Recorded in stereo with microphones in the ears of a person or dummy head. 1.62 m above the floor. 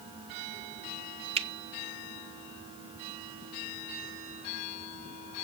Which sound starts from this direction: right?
A finger snap, at 1.4 s.